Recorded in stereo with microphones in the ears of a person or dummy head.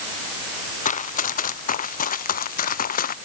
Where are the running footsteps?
40° left (ahead or behind); by 3.2 s 45° left (ahead or behind).